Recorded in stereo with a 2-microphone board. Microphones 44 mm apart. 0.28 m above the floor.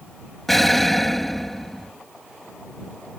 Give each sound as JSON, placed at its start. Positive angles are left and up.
{"t": 0.5, "sound": "an explosion", "side_deg": 5}